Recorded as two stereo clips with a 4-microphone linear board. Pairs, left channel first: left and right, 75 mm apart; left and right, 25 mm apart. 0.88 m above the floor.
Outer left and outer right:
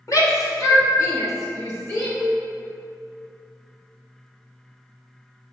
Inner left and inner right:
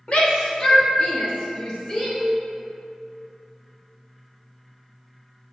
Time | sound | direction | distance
0.1 | a shout | 50° left (ahead or behind) | 1.2 m
2.2 | a cowbell | 20° right (ahead or behind) | 1.0 m